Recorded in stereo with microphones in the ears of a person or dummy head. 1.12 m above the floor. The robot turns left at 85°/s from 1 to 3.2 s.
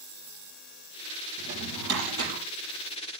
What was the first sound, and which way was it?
A drawer, 50° right.